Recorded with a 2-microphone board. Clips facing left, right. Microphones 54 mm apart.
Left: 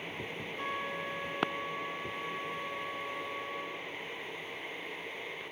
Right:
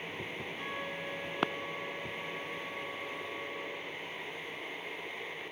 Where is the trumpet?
45° left (ahead or behind), 2 m.